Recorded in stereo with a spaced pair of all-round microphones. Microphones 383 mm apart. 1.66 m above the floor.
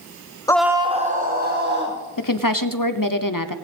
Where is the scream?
10° left (ahead or behind), 0.5 m; by 2.0 s 30° right (ahead or behind), 2 m.